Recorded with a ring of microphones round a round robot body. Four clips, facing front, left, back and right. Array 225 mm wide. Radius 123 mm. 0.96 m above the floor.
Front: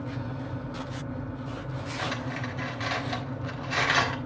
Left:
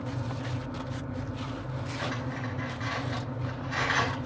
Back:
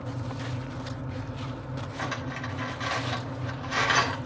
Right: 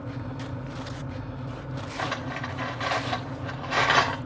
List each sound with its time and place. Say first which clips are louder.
2.0 s cutlery clinking: right 4 dB, front 1 dB; 80° right, 1.8 m